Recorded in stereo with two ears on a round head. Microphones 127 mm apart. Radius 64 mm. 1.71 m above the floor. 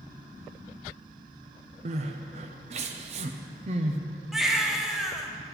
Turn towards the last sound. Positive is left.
turn(degrees=0)  # may be behind; listen again after turning